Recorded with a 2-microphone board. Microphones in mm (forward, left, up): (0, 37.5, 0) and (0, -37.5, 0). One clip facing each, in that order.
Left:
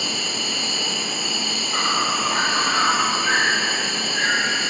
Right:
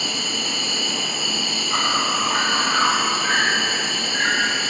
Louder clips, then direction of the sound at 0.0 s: Even; 50° right (ahead or behind).